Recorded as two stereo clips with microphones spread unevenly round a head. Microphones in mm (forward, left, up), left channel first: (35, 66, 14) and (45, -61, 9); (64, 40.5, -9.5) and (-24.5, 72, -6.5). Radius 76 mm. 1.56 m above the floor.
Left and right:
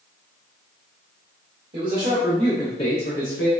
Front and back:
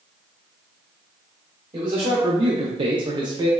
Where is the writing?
No writing in this recording.